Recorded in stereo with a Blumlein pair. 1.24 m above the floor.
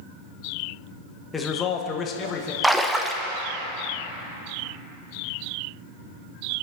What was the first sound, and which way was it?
A man speaking, 15° left.